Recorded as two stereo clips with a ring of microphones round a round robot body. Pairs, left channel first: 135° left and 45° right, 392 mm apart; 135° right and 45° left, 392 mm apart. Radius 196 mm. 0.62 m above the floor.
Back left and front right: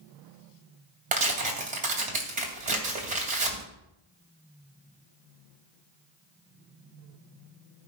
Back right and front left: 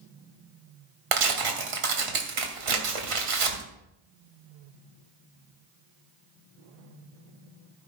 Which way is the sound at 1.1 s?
25° left.